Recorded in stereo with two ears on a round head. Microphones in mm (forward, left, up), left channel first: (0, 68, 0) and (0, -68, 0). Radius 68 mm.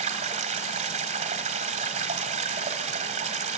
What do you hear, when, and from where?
0.0 s running water: 45° right (ahead or behind), 2 m